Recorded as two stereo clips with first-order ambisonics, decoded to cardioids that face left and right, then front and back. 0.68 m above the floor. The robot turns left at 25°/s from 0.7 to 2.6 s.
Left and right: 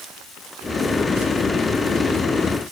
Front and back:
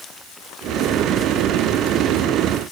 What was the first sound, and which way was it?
Only background noise.